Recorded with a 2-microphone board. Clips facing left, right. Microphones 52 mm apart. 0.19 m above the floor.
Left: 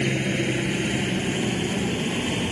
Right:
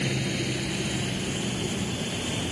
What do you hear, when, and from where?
0.0 s a helicopter: 30° left (ahead or behind); by 2.5 s 40° left (ahead or behind)